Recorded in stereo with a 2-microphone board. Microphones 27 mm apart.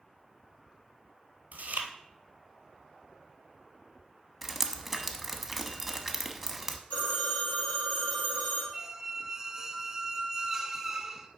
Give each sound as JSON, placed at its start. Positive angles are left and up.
{"t": 1.5, "sound": "chewing", "side_deg": -80, "distance_m": 1.0}
{"t": 4.4, "sound": "dripping", "side_deg": -5, "distance_m": 0.7}
{"t": 6.9, "sound": "a phone ringing", "side_deg": 70, "distance_m": 2.5}
{"t": 8.7, "sound": "a squeak", "side_deg": -15, "distance_m": 0.6}